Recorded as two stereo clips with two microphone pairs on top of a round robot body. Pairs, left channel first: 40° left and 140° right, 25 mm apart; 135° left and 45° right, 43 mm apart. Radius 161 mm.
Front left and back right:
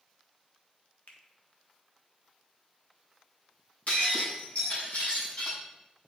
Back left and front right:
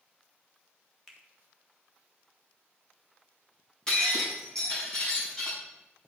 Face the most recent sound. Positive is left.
turn(degrees=65)